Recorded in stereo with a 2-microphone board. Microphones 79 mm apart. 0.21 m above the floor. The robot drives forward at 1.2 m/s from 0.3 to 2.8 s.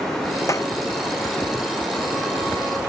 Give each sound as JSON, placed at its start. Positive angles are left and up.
{"t": 0.5, "sound": "a clap", "side_deg": 40}